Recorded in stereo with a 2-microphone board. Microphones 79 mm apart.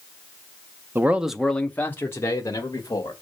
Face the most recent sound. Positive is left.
turn(degrees=45)  # may be behind; listen again after turning